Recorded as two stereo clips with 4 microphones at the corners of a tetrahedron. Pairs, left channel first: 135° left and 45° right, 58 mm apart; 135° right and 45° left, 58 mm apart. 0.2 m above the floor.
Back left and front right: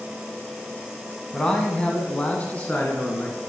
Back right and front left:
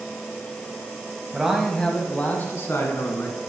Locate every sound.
1.3 s a man speaking: 80° left, 1.0 m; by 3.4 s 160° right, 2.5 m